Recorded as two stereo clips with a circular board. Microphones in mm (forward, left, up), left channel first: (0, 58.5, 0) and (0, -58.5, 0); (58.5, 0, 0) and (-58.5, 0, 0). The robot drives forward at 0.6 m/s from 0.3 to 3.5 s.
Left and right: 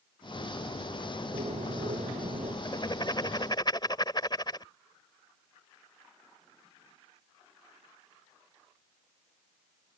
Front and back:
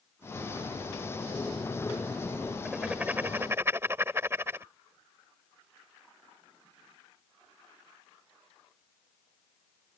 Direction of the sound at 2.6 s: 100° left.